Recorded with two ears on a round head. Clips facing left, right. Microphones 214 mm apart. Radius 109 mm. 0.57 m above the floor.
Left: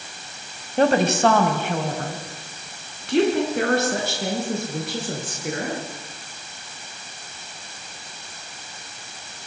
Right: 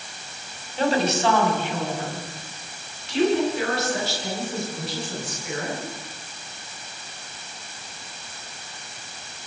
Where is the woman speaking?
45° left (ahead or behind), 3.5 m.